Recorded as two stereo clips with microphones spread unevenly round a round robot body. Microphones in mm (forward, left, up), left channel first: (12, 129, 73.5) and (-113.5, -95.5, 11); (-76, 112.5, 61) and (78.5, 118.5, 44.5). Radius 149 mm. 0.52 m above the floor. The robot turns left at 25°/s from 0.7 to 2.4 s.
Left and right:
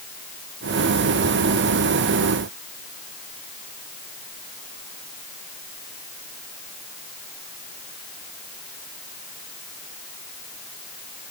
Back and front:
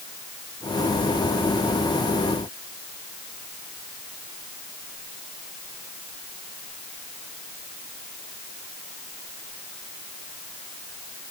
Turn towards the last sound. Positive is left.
No sound to turn to.